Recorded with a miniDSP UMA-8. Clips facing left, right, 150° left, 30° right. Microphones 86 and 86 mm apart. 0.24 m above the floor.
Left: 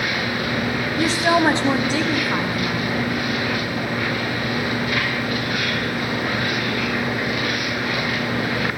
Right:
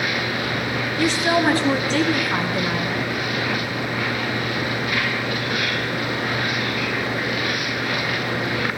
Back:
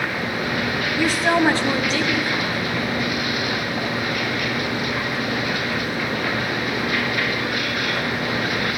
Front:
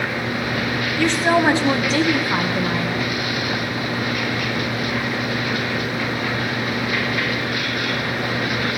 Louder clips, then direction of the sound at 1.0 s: Left 2 dB, front 1 dB; 80° left.